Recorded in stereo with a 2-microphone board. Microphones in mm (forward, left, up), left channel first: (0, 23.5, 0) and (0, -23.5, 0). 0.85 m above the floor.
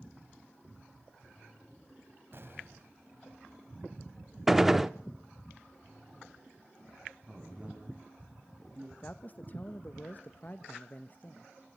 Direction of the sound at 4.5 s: 5° right (ahead or behind).